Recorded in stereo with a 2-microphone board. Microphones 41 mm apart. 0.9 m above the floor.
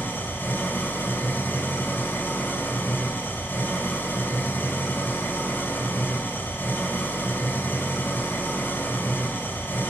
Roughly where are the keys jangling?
I don't hear keys jangling.